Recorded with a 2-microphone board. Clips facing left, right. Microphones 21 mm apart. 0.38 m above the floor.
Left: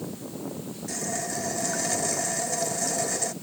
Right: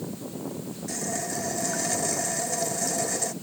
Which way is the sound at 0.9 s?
Centre (ahead or behind).